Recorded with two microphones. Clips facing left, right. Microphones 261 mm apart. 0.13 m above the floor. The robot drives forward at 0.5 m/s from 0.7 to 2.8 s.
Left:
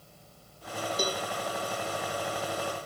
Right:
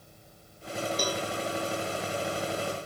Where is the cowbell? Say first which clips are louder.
Left 2 dB; 25° left (ahead or behind), 1.7 m.